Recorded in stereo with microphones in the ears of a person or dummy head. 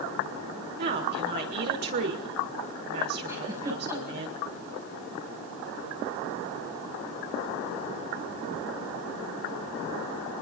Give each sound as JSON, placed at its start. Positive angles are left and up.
{"t": 0.8, "sound": "a woman speaking", "side_deg": -50, "distance_m": 5.5}
{"t": 3.3, "sound": "a giggle", "side_deg": -20, "distance_m": 6.5}